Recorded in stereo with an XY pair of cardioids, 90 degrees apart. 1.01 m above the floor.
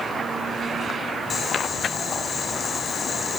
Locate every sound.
1.3 s boiling: 55° left, 5 m